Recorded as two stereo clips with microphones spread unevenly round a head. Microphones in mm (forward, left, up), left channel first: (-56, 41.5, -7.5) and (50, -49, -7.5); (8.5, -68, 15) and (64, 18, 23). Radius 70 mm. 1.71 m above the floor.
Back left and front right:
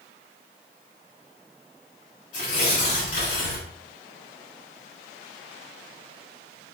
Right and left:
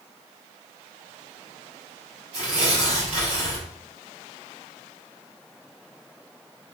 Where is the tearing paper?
110° left, 3 m.